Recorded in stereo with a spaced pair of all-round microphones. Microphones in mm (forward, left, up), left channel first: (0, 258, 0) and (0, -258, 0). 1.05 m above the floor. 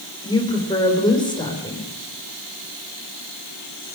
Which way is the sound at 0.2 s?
10° left (ahead or behind).